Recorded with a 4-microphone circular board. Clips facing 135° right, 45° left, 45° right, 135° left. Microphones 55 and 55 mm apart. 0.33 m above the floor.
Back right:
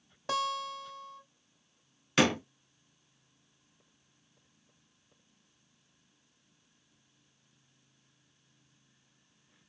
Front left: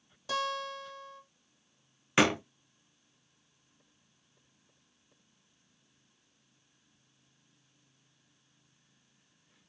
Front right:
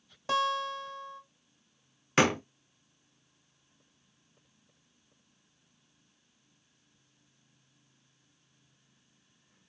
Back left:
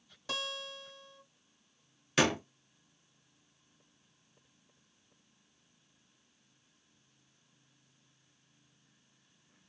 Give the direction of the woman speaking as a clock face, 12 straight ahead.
No woman speaking in this recording.